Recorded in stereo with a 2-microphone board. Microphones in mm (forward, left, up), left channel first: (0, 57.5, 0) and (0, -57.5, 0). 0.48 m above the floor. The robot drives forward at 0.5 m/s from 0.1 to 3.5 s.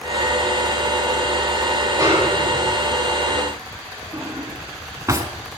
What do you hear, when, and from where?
2.0 s a snare drum: 35° right (ahead or behind), 8.5 m
4.1 s a drawer: 30° right (ahead or behind), 1.4 m